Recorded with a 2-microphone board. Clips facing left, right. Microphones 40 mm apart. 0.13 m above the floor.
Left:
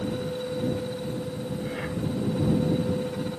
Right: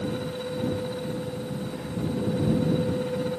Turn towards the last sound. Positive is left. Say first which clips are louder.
# left 1 dB
turn(degrees=65)  # may be behind; listen again after turning